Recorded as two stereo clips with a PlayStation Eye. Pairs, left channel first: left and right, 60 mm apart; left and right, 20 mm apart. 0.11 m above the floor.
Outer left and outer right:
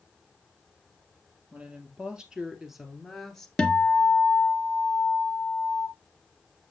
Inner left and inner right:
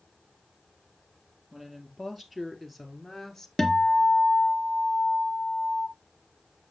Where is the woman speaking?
20° right (ahead or behind), 2.5 m; by 3.5 s 10° left (ahead or behind), 1.7 m.